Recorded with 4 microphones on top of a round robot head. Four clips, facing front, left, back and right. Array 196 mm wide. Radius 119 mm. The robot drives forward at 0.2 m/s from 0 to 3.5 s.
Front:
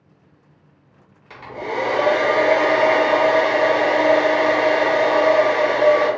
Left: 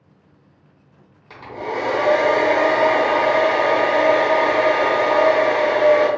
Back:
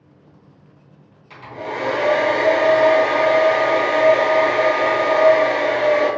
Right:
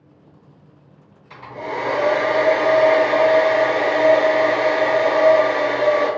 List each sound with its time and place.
1.3 s a hair dryer: 60° left, 1.2 m; by 6.1 s 85° left, 1.1 m